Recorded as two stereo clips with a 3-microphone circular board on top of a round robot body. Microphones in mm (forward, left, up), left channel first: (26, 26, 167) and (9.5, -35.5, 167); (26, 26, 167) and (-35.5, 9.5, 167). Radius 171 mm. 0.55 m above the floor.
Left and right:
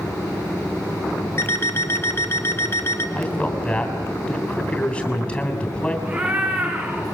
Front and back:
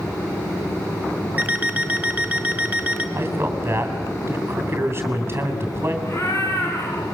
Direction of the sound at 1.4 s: 130° left.